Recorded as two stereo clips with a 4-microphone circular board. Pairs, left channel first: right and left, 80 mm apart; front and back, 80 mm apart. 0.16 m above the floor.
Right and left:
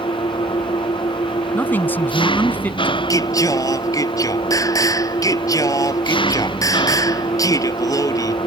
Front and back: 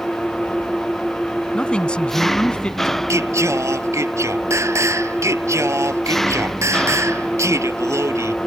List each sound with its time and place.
0.0 s an engine running: 85° right
1.5 s a man speaking: 60° right
3.1 s singing: 130° right